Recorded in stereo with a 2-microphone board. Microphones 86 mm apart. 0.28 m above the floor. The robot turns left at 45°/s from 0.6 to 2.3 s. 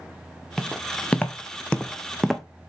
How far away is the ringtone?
I don't hear a ringtone.